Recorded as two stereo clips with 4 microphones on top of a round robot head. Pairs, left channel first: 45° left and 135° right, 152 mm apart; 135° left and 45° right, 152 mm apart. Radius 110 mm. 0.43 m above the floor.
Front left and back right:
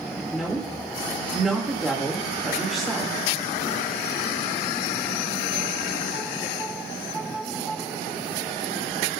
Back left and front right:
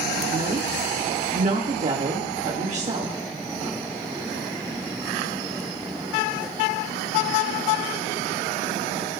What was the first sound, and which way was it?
A woman speaking, 50° right.